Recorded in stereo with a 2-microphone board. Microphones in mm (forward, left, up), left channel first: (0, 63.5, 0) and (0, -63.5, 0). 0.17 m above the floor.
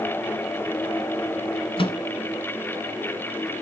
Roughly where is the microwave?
Left.